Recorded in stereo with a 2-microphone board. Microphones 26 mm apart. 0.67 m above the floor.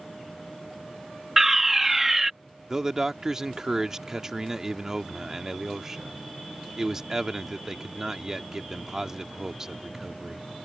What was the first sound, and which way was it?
A fire alarm, 10° right (ahead or behind).